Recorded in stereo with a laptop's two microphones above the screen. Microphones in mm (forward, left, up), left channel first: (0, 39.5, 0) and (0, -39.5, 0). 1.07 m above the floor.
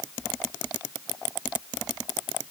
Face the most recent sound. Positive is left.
No sound to turn to.